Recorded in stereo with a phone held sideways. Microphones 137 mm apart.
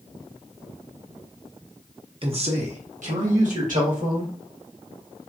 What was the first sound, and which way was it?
A man speaking, 40° right (ahead or behind).